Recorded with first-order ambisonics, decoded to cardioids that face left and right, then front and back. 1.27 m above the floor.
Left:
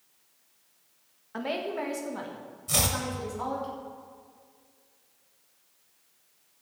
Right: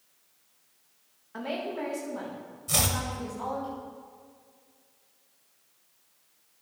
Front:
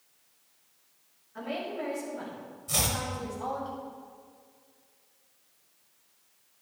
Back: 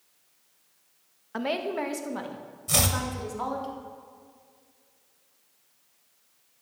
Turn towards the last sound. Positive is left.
turn(degrees=-175)